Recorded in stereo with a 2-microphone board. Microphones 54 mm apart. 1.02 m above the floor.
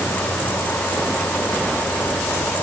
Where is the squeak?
I don't hear a squeak.